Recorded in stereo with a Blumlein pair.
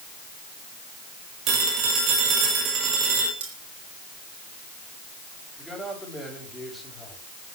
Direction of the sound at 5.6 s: Straight ahead.